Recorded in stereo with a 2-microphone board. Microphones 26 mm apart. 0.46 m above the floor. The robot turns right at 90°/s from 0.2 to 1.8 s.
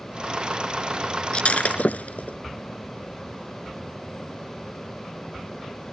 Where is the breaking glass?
40° left (ahead or behind); by 2.4 s 80° left.